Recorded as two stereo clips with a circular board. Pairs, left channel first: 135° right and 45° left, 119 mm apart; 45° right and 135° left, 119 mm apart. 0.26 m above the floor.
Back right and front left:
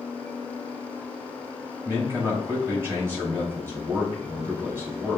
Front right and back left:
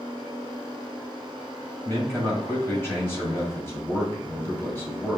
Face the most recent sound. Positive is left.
turn(degrees=0)